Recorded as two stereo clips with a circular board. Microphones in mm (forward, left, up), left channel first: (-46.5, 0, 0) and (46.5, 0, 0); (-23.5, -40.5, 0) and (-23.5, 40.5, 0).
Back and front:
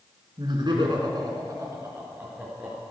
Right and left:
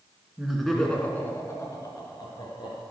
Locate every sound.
0.4 s laughter: 10° left, 2.5 m; by 2.8 s 75° right, 3.5 m